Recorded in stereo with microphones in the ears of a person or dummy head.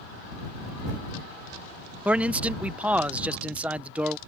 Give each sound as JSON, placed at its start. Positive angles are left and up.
{"t": 2.0, "sound": "a man speaking", "side_deg": -5}